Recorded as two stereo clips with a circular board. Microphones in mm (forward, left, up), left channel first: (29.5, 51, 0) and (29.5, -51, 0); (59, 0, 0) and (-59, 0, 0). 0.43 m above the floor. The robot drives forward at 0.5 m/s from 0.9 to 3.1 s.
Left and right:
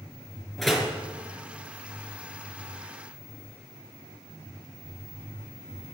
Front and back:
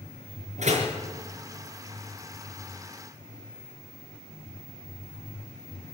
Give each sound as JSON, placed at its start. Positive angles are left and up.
{"t": 0.6, "sound": "a door slam", "azimuth_deg": 180, "distance_m": 5.0}